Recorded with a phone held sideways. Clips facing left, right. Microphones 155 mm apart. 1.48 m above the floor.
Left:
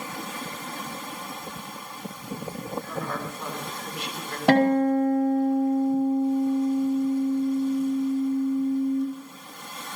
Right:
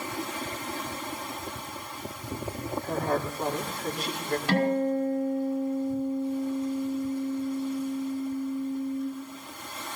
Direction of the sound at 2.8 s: 40° right (ahead or behind).